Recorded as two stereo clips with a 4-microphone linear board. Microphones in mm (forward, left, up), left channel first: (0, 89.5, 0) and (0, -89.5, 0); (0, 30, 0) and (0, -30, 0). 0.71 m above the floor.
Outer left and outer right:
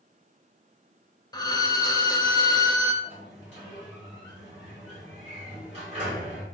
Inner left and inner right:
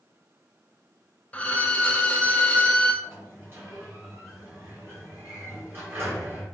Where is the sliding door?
35° right (ahead or behind), 1.8 m.